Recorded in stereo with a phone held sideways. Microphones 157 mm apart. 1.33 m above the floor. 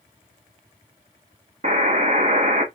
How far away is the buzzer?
About 0.9 m.